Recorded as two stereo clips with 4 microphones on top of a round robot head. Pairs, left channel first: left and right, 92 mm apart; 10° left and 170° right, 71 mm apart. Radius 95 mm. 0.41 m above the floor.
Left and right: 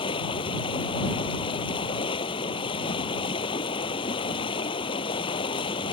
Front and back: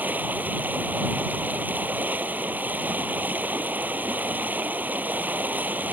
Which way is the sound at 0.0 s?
125° left.